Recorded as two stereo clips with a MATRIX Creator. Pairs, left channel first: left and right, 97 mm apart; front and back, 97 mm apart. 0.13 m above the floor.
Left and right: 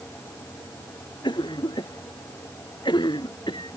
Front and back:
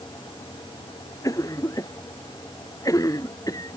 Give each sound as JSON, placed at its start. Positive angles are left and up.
{"t": 1.2, "sound": "a cough", "azimuth_deg": 55}